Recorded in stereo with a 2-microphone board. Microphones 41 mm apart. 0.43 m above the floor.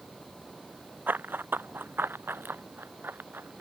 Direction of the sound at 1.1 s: 60° right (ahead or behind).